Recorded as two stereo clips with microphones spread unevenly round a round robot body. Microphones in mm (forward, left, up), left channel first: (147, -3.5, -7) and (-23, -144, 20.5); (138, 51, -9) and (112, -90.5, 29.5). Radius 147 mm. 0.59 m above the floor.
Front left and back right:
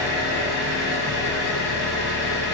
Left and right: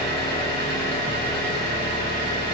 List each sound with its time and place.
0.0 s an engine running: 95° right, 1.4 m